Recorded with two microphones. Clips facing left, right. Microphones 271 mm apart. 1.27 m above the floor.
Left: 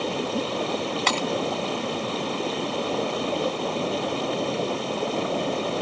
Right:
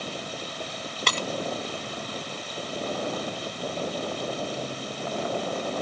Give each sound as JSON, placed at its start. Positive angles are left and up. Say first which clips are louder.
{"t": 0.0, "sound": "running water", "louder": "left 10 dB", "side_deg": 85}
{"t": 1.1, "sound": "breaking glass", "louder": "left 2 dB", "side_deg": -40}